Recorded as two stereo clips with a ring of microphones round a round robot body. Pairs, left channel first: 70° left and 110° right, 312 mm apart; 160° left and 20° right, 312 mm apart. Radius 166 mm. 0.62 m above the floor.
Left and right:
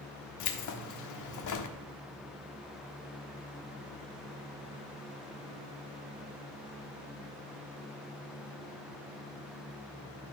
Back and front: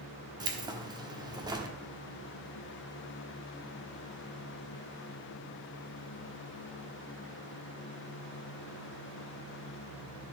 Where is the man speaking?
I don't hear a man speaking.